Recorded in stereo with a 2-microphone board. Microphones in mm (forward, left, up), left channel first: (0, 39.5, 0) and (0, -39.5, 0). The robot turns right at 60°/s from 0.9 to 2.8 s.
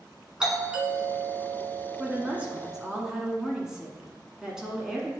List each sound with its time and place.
0.4 s a doorbell: 10° right (ahead or behind), 1.8 m; by 3.0 s 15° right (ahead or behind), 1.8 m
2.0 s a woman speaking: 20° right (ahead or behind), 1.4 m; by 5.1 s 10° right (ahead or behind), 1.4 m